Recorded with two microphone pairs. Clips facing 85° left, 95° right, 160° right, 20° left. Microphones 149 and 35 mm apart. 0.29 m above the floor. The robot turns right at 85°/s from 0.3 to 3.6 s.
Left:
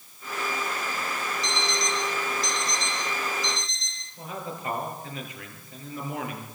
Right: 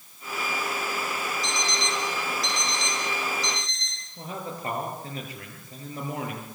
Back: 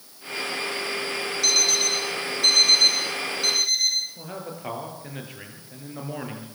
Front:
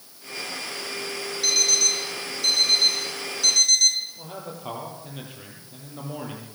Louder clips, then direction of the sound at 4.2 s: Right 1 dB, back 1 dB; 150° right.